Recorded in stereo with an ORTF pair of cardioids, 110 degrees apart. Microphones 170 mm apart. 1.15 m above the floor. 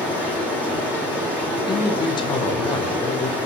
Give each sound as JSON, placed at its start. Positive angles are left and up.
{"t": 0.0, "sound": "running water", "azimuth_deg": 10, "distance_m": 2.0}
{"t": 1.7, "sound": "a man speaking", "azimuth_deg": 25, "distance_m": 0.7}